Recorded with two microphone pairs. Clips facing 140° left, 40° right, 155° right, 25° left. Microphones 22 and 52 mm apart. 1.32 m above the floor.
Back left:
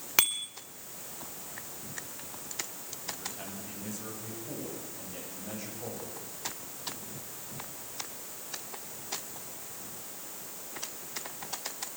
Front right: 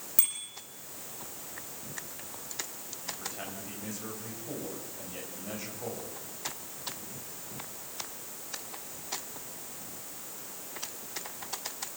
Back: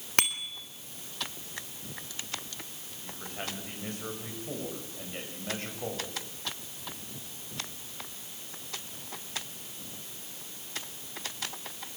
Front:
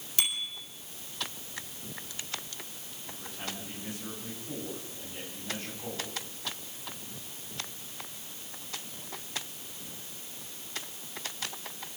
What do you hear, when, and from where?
0.2 s a bicycle bell: 175° left, 3.5 m
3.0 s a man speaking: 120° right, 8.5 m